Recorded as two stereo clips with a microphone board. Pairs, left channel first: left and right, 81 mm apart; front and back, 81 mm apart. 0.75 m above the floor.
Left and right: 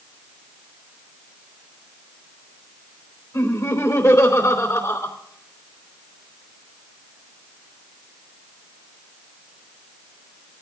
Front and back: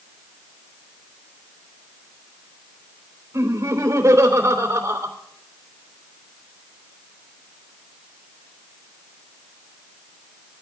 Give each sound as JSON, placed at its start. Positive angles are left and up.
{"t": 3.3, "sound": "laughter", "azimuth_deg": 130, "distance_m": 3.0}